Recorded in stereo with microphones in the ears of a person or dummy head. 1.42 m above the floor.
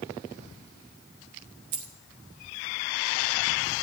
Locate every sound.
1.7 s a dropped coin: 35° right (ahead or behind), 0.9 m